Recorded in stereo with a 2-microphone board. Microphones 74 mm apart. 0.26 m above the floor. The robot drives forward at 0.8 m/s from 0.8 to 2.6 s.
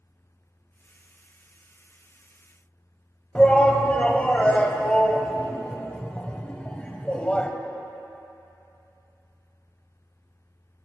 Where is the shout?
15° left (ahead or behind), 1.1 m.